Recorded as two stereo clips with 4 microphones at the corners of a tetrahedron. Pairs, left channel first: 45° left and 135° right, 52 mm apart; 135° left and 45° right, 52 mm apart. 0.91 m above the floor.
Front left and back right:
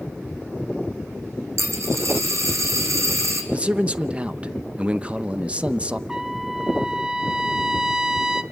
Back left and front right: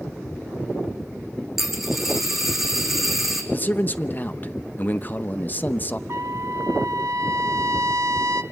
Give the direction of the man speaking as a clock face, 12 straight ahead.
6 o'clock.